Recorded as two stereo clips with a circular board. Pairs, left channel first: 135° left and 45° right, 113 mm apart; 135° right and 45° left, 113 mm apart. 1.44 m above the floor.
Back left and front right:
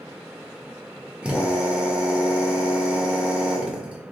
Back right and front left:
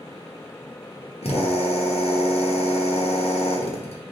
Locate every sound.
1.2 s a drill: 125° right, 1.1 m